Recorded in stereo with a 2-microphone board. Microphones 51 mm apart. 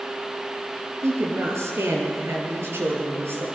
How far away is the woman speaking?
About 6 m.